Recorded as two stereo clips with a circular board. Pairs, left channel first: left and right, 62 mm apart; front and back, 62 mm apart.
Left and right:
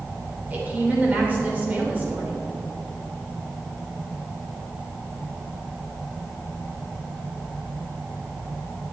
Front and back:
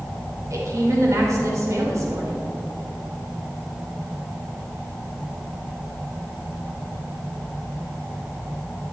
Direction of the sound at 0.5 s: 150° right.